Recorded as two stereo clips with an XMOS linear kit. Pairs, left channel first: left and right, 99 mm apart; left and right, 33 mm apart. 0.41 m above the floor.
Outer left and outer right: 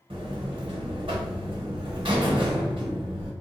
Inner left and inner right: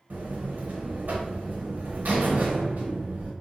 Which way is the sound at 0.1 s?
65° right (ahead or behind).